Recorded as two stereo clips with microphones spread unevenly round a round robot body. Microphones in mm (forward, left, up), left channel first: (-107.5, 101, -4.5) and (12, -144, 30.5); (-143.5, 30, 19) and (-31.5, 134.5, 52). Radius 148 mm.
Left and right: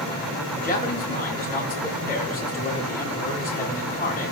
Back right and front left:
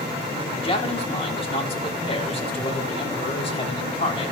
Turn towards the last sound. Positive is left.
turn(degrees=175)